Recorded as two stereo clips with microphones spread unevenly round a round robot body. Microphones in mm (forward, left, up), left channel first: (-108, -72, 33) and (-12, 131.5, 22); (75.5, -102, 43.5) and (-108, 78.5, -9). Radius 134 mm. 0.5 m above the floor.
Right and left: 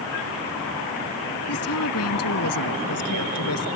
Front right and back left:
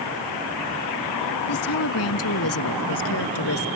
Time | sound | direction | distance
1.5 | a woman speaking | 80° right | ?